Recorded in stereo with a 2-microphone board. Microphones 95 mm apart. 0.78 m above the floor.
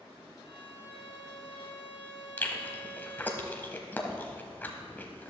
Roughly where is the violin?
Left.